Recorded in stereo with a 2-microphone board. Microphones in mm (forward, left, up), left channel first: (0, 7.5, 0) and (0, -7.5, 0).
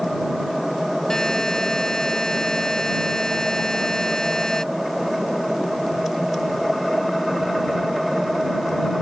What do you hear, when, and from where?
1.1 s a buzzer: 55° left (ahead or behind)